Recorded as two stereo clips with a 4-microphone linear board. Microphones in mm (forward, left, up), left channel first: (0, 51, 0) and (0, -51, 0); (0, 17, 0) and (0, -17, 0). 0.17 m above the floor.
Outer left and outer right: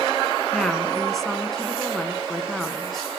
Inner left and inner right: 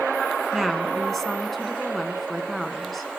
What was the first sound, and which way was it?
A woman speaking, centre (ahead or behind).